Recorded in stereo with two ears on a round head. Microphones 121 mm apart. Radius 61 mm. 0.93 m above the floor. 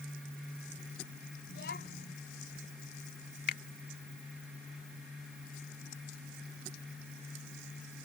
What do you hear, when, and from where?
1.5 s a child speaking: 90° left
3.5 s a finger snap: 75° left (ahead or behind)